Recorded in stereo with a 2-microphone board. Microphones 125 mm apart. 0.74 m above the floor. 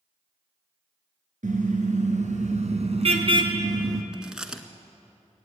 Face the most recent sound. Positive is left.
turn(degrees=-5)  # may be behind; listen again after turning